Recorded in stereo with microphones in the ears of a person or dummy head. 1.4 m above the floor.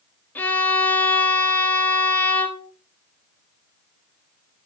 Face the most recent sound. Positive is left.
turn(degrees=10)  # may be behind; listen again after turning